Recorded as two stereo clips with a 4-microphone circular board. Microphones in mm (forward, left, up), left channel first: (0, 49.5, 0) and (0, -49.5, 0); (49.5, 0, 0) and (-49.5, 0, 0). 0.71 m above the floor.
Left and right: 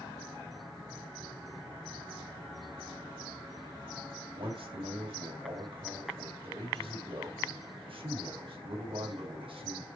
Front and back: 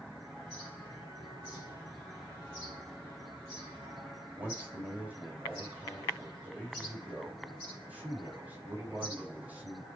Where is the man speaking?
105° right, 4 m.